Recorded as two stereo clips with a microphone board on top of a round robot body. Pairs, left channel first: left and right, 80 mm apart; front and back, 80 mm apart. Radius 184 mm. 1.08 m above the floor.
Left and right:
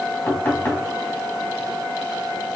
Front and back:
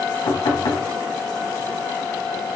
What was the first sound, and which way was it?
Knocking, 25° left.